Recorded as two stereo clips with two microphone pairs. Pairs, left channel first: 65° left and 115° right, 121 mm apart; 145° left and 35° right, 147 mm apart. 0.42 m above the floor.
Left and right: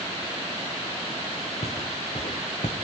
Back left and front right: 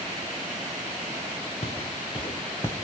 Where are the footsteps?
105° left, 3.5 m; by 2.7 s 80° left, 2.5 m.